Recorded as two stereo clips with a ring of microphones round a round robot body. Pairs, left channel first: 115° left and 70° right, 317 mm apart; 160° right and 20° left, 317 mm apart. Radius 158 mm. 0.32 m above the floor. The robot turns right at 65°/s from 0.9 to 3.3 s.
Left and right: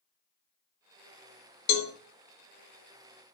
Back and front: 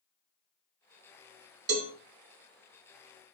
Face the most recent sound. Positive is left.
turn(degrees=-175)